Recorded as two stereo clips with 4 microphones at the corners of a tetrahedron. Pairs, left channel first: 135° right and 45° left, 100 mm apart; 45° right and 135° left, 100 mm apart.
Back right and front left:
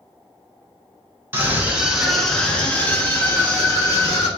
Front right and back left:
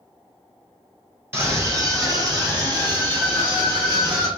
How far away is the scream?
About 1.2 m.